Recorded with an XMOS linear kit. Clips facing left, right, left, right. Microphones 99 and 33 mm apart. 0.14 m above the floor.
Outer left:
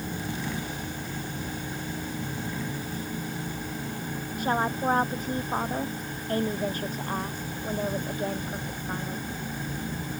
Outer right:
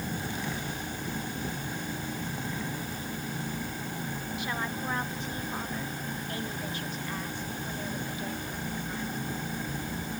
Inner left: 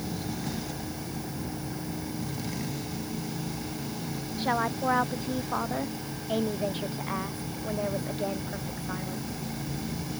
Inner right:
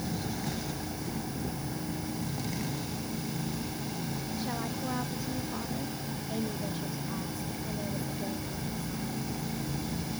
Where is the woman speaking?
45° left (ahead or behind).